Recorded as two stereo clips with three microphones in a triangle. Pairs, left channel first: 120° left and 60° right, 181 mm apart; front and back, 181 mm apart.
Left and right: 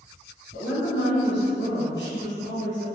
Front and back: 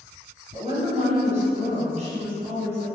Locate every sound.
0.5 s a woman speaking: 125° left, 0.9 m